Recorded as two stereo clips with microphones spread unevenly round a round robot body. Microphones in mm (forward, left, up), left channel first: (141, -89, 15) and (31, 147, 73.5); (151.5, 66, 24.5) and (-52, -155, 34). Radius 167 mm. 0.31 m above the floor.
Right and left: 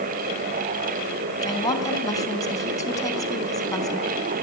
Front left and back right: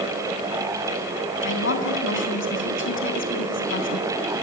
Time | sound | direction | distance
1.4 | a woman speaking | 5° left | 3.5 m